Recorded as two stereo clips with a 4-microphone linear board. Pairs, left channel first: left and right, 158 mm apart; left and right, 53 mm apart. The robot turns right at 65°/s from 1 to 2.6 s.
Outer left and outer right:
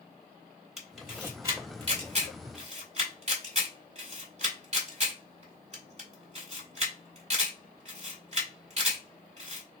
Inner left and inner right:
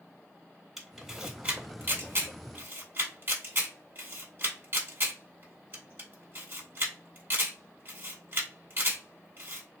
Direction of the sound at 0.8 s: Centre (ahead or behind).